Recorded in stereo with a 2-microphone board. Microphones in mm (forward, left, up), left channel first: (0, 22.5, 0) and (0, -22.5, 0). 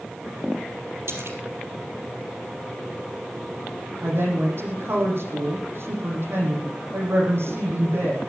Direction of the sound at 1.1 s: 65° right (ahead or behind).